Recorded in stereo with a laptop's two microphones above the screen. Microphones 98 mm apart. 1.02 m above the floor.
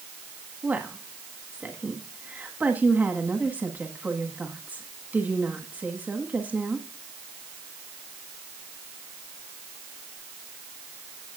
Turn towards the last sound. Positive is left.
turn(degrees=-15)  # may be behind; listen again after turning